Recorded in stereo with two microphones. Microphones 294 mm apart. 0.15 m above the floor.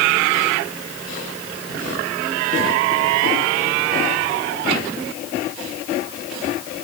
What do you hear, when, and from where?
Only background noise.